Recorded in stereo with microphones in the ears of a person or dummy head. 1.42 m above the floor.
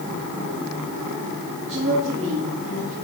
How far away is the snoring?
I don't hear snoring.